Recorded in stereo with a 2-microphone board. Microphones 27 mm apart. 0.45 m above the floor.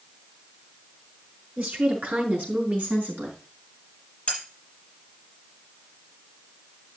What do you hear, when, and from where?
1.6 s a woman speaking: 75° right (ahead or behind), 5 m; by 3.4 s 70° right (ahead or behind), 4.5 m
4.3 s cutlery clinking: 30° left (ahead or behind), 7 m